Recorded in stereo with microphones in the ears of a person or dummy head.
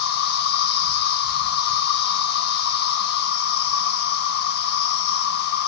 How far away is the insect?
About 0.8 m.